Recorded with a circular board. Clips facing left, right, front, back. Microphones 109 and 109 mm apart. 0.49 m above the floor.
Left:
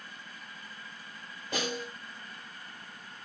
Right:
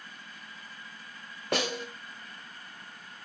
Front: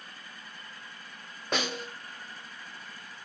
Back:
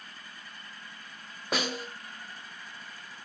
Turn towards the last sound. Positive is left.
turn(degrees=-95)